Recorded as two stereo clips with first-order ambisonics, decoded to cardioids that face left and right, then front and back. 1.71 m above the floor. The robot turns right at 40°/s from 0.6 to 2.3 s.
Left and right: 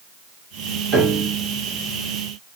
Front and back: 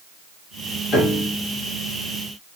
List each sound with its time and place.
0.9 s a piano: 50° right, 1.5 m; by 1.3 s 35° right, 1.5 m